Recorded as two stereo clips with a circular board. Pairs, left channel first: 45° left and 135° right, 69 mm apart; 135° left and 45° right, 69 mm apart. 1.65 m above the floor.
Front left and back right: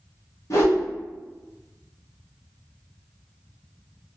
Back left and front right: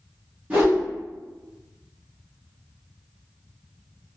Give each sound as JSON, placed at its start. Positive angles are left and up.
{"t": 0.5, "sound": "a whoosh", "azimuth_deg": 20, "distance_m": 1.1}